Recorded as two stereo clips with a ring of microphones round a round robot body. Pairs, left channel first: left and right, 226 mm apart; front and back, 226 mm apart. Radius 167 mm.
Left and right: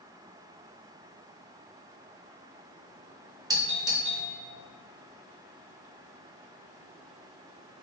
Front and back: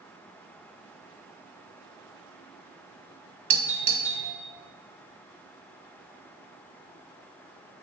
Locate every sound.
3.5 s a doorbell: 150° right, 1.1 m